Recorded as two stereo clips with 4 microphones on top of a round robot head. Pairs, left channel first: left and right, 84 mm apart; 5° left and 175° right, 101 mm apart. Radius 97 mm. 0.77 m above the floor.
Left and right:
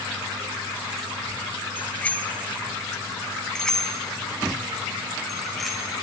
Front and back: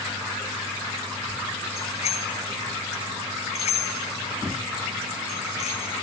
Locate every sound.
1.8 s a bicycle bell: 20° left, 2.5 m; by 5.9 s straight ahead, 6.5 m